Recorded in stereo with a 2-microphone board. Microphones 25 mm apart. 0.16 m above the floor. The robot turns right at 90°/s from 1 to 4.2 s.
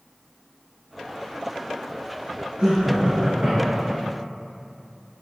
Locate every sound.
2.6 s laughter: 115° right, 2 m; by 4.0 s 10° left, 2 m